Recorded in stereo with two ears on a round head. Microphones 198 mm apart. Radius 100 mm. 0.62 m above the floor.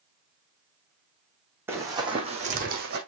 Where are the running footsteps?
10° right (ahead or behind), 2.5 m; by 3.0 s 45° right (ahead or behind), 2 m.